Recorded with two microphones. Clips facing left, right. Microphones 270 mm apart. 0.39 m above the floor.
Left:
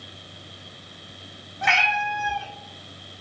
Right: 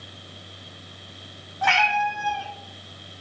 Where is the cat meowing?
25° left (ahead or behind), 0.9 m.